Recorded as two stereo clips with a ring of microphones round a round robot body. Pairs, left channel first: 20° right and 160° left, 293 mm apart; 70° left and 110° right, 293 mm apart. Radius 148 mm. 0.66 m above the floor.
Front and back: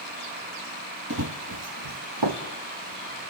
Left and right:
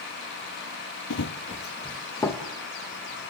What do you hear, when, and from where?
1.1 s running footsteps: 110° left, 1.2 m; by 2.4 s 150° left, 2.5 m